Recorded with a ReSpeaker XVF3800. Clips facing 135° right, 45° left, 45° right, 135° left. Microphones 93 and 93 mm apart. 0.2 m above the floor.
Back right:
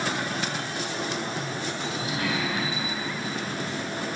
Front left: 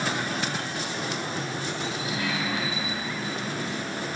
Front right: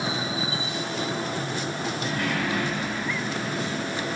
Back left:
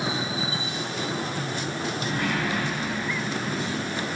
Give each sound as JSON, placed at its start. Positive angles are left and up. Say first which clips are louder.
{"t": 2.0, "sound": "a sliding door", "louder": "back right 2 dB, even", "azimuth_deg": -165, "distance_m": 2.0}